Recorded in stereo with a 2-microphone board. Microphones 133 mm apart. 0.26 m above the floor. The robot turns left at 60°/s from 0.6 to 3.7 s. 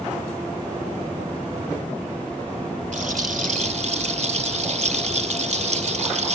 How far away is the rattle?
About 0.8 m.